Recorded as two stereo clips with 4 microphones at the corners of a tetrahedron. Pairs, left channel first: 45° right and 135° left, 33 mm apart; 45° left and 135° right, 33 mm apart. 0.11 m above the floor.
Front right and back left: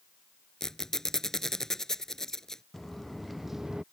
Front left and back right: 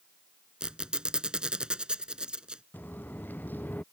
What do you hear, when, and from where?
0.6 s a squeak: 105° right
2.7 s footsteps: 40° left; by 3.8 s 70° left